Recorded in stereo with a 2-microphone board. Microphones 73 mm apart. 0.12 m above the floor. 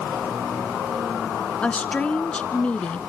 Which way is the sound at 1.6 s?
15° left (ahead or behind).